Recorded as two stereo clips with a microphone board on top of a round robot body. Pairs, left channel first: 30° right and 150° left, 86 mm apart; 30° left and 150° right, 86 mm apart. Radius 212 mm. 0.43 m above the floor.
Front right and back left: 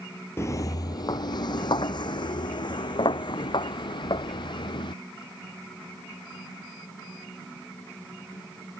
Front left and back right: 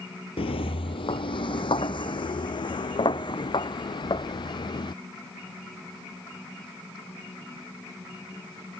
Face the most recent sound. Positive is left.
turn(degrees=-5)